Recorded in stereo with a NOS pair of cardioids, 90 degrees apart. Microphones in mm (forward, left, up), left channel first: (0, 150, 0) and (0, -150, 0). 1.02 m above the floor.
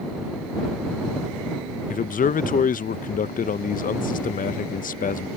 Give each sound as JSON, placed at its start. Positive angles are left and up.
{"t": 1.9, "sound": "a man speaking", "azimuth_deg": 30}